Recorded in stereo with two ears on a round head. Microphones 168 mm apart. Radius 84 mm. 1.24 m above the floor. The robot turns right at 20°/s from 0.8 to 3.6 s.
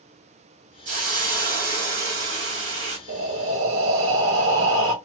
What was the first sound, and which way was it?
A hiss, 135° right.